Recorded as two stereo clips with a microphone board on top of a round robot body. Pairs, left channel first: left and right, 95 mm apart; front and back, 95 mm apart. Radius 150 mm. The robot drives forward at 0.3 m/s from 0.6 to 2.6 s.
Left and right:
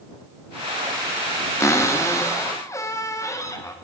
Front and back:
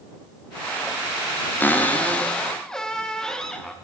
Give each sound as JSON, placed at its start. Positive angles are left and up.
{"t": 1.6, "sound": "a cupboard door", "azimuth_deg": 55, "distance_m": 1.3}